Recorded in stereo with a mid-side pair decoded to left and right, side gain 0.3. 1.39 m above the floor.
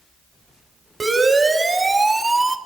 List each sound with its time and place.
1.0 s a siren: 40° right, 4 m; by 2.6 s 20° right, 2.5 m